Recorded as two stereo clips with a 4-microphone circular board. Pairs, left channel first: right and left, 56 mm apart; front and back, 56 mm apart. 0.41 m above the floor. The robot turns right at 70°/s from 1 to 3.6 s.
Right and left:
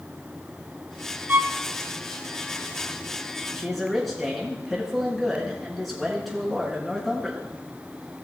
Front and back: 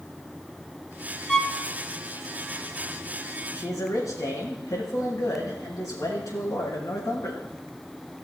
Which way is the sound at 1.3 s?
65° left.